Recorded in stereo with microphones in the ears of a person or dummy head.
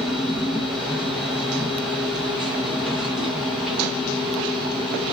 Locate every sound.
0.0 s a machine running: centre (ahead or behind), 0.8 m